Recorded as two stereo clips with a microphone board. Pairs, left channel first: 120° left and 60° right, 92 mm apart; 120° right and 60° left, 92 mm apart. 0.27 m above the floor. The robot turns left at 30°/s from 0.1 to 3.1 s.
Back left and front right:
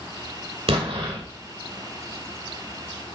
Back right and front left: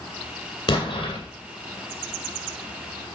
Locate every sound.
0.7 s an explosion: 75° right, 3 m; by 1.2 s 90° right, 3 m